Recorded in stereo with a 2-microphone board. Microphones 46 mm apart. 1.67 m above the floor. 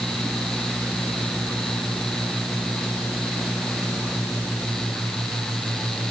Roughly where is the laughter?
No laughter in this recording.